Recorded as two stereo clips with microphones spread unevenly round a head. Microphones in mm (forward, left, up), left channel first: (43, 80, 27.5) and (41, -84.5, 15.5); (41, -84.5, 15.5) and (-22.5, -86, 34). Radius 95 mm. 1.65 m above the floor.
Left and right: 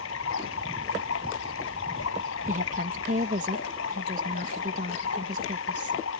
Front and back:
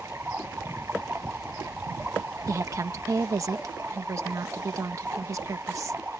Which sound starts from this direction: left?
Running water, at 0.0 s.